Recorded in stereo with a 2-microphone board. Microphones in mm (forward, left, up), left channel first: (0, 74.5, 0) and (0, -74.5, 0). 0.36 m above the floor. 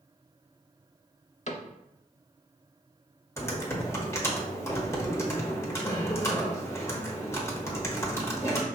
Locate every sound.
1.5 s a cupboard door: 55° left (ahead or behind), 0.7 m
3.4 s typing on a keyboard: 20° left (ahead or behind), 1.1 m